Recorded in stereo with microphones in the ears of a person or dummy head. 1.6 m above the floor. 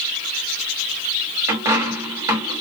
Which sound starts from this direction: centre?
A dropped coin, at 1.5 s.